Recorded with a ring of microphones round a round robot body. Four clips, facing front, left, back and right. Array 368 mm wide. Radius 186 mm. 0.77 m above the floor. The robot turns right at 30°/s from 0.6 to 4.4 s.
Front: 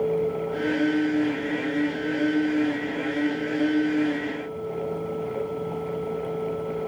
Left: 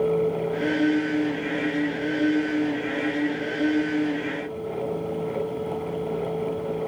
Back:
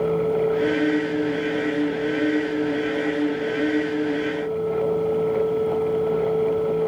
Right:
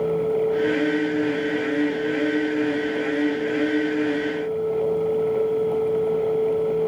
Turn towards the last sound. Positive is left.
No sound to turn to.